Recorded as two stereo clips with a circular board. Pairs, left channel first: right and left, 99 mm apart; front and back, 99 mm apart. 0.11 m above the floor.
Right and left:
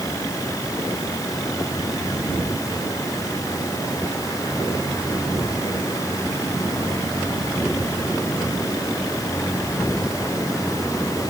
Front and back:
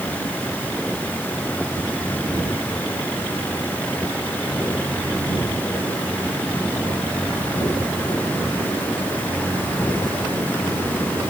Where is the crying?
I don't hear crying.